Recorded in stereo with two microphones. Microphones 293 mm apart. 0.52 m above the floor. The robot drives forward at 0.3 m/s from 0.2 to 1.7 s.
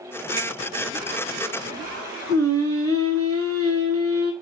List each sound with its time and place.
0.4 s a finger snap: 60° left (ahead or behind), 1.5 m; by 0.5 s 55° left (ahead or behind), 1.5 m
2.3 s singing: 50° right (ahead or behind), 0.8 m